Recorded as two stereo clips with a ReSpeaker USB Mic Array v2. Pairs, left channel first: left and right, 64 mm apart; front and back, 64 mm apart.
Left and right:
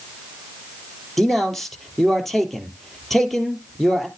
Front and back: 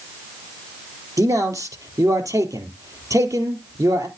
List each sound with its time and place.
1.2 s a man speaking: 175° left, 2.5 m